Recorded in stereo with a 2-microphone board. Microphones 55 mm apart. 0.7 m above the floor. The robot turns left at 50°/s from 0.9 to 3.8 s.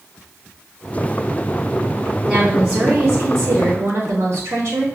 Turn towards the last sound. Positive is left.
turn(degrees=-80)